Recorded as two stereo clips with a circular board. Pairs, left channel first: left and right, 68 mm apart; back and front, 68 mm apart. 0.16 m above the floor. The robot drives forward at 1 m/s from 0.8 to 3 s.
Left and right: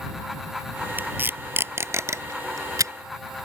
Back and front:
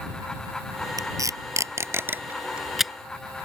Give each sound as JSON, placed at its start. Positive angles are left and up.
{"t": 1.0, "sound": "tape being pulled", "azimuth_deg": -25}